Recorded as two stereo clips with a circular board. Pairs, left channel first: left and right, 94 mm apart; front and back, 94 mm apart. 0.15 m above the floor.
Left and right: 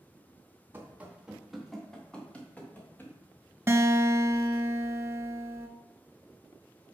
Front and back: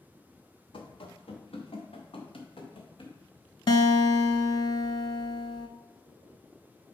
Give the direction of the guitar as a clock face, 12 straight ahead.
1 o'clock.